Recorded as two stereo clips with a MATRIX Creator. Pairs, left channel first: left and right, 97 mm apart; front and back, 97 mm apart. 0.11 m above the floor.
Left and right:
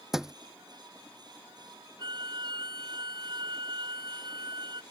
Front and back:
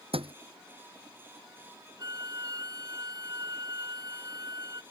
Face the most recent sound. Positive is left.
turn(degrees=-130)